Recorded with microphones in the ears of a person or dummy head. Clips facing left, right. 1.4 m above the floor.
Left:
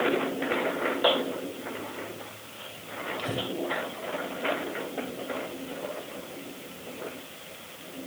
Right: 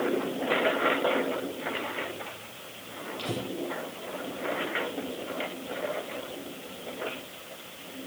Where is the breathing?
20° left (ahead or behind), 2.5 m.